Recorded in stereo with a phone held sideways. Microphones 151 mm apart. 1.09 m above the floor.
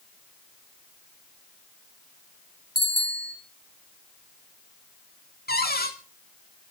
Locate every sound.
2.8 s a bicycle bell: 80° left, 3.5 m
5.5 s a cupboard door: 75° left (ahead or behind), 2 m